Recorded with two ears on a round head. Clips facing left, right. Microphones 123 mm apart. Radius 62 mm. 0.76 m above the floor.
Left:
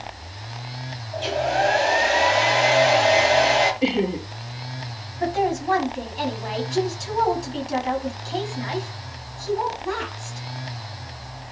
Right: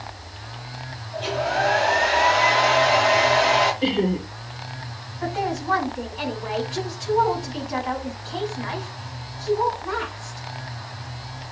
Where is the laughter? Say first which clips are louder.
Even; 15° left (ahead or behind), 1.8 m.